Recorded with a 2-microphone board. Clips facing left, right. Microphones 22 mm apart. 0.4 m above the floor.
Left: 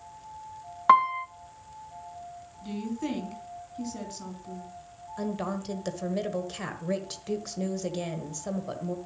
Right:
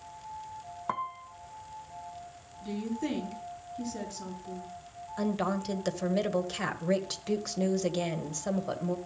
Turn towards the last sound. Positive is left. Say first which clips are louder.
# right 2 dB
turn(degrees=-15)  # may be behind; listen again after turning